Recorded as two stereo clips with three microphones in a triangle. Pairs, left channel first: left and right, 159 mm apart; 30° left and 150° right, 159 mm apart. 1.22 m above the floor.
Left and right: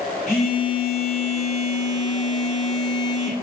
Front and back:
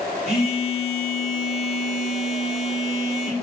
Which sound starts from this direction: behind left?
A phone buzzing, at 0.3 s.